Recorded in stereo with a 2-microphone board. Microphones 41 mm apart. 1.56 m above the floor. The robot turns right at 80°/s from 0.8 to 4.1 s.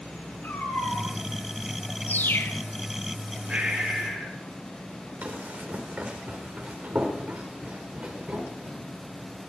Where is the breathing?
30° right, 4 m; by 4.4 s 15° left, 4 m.